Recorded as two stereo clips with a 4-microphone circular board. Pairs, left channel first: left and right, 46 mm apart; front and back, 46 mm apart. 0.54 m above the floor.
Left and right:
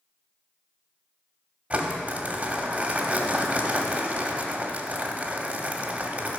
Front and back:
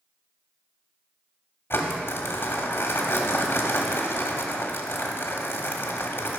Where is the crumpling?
30° right, 1.2 m.